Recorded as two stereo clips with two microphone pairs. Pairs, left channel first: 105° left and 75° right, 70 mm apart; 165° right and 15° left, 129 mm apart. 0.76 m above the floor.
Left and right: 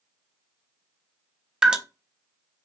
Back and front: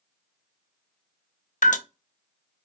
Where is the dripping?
155° right, 0.6 m.